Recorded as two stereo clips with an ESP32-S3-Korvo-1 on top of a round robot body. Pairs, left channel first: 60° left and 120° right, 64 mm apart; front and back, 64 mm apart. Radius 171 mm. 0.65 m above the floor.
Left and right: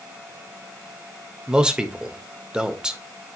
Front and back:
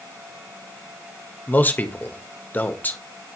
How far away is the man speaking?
About 1.4 m.